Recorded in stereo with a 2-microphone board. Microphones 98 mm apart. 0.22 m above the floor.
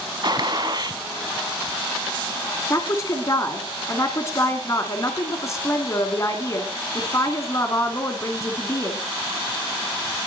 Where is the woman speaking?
30° left (ahead or behind), 2.5 m.